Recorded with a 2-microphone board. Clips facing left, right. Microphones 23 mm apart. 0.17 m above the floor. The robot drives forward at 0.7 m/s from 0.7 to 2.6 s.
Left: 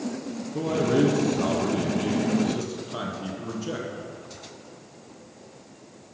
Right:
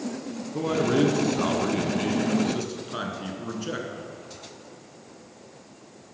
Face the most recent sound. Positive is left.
turn(degrees=-20)  # may be behind; listen again after turning